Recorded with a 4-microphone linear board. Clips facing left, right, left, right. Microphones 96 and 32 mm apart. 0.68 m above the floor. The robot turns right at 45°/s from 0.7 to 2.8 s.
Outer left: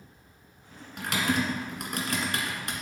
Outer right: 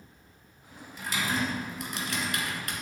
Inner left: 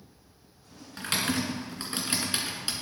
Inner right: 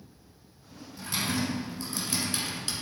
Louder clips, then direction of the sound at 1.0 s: Outer left 3 dB, inner left 2 dB; 75° left (ahead or behind).